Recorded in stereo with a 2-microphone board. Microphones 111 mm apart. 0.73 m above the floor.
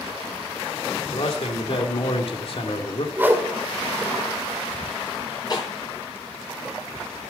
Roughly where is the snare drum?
Left.